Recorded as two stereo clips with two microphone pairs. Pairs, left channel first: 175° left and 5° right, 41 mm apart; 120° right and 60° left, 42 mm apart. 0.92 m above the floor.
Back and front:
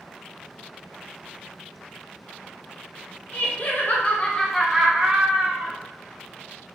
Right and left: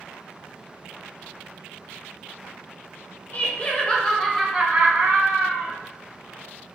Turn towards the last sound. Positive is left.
turn(degrees=50)